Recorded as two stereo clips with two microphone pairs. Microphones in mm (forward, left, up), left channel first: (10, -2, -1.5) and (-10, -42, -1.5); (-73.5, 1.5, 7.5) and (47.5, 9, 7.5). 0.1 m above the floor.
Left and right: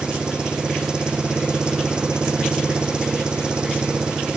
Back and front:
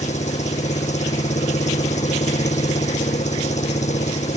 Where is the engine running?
175° left.